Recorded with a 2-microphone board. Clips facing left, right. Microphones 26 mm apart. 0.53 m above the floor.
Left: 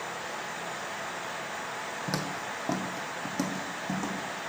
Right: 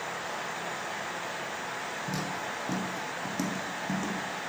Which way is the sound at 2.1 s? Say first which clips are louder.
Left 2 dB; 50° left (ahead or behind).